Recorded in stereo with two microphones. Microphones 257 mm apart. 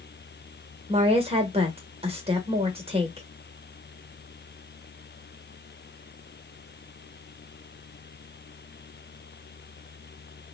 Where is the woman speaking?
20° right (ahead or behind), 0.9 m.